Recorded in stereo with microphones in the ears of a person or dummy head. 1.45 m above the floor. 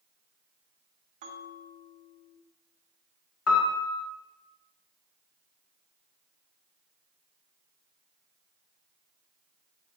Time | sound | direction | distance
1.2 | a bell | 50° right (ahead or behind) | 1.4 m
3.5 | a piano | 70° left (ahead or behind) | 1.4 m